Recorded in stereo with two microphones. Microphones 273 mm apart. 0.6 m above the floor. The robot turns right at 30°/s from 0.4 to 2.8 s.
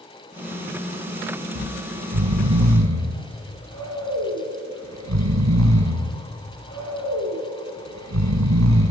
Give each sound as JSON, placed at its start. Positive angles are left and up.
{"t": 1.6, "sound": "snoring", "side_deg": -60, "distance_m": 1.8}